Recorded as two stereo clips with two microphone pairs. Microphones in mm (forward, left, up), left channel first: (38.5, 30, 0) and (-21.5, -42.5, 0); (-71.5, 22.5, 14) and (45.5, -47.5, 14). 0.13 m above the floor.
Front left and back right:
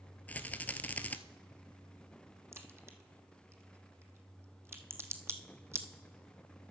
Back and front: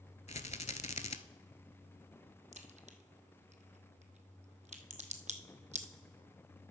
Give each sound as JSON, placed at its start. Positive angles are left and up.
{"t": 0.3, "sound": "a rattle", "azimuth_deg": 125, "distance_m": 0.5}
{"t": 2.5, "sound": "a crack", "azimuth_deg": -65, "distance_m": 0.9}